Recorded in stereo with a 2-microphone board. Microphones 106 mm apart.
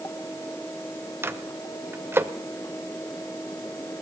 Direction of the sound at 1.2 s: 20° right (ahead or behind).